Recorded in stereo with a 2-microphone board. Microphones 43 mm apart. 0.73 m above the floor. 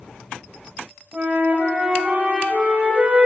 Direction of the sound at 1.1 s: 30° right (ahead or behind).